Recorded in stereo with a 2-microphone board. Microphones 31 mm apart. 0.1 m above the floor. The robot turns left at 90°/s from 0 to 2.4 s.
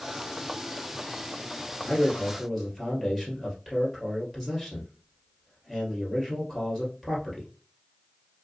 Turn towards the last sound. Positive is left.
turn(degrees=5)